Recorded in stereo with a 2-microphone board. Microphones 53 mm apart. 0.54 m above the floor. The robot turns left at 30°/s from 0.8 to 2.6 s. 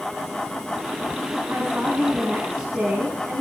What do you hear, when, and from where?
1.5 s a woman speaking: 150° right, 5 m; by 3.4 s 175° left, 5 m